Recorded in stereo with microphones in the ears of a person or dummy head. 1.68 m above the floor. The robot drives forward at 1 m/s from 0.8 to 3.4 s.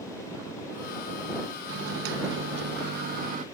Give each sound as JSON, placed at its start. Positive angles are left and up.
{"t": 1.7, "sound": "a microwave", "side_deg": -65}